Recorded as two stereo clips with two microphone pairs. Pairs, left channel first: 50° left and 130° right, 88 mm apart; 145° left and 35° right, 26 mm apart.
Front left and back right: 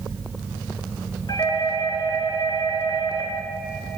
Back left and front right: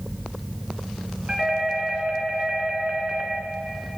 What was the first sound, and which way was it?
A doorbell, 20° left.